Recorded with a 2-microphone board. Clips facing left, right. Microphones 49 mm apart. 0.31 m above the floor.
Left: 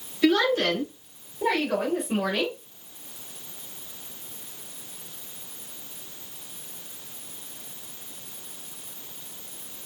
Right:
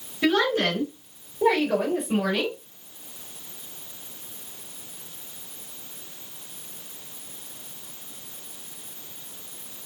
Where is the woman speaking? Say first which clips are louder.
Left 1 dB; 25° right (ahead or behind), 1.7 m; by 2.6 s 10° left (ahead or behind), 1.6 m.